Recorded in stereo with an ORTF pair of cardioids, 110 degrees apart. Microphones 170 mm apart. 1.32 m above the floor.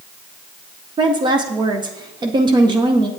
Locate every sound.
1.0 s a woman speaking: 25° right, 0.6 m